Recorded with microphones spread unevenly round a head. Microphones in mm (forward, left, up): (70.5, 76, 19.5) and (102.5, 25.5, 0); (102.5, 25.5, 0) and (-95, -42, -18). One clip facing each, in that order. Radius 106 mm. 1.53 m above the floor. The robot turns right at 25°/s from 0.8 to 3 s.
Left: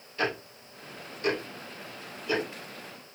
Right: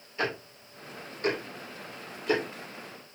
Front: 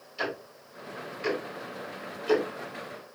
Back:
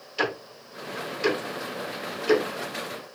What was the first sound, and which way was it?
Ticking, 140° right.